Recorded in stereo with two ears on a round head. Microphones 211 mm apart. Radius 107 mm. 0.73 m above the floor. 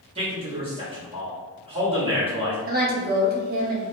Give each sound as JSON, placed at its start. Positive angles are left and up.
{"t": 0.1, "sound": "a man speaking", "side_deg": -20, "distance_m": 1.1}
{"t": 2.7, "sound": "a woman speaking", "side_deg": -40, "distance_m": 0.8}